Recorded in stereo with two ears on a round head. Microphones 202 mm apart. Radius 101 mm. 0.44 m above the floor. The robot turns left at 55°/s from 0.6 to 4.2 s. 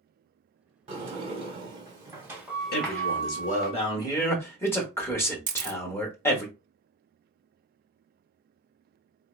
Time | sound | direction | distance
0.9 | a sliding door | 25° right (ahead or behind) | 1.2 m
2.7 | a man speaking | 100° left | 1.0 m
5.5 | a camera shutter | 35° right (ahead or behind) | 0.6 m